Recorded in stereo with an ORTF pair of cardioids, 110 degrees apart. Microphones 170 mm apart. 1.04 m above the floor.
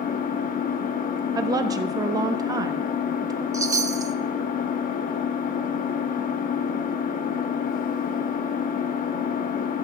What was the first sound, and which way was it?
An engine running, 60° left.